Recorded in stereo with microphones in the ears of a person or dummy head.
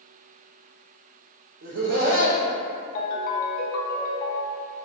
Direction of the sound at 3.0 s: 45° left (ahead or behind).